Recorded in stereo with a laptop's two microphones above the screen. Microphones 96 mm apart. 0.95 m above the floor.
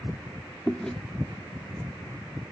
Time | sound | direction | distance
0.7 | chewing | 10° left (ahead or behind) | 0.8 m